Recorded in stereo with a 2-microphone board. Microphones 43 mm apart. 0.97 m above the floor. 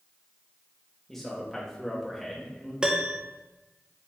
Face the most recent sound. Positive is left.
turn(degrees=-20)  # may be behind; listen again after turning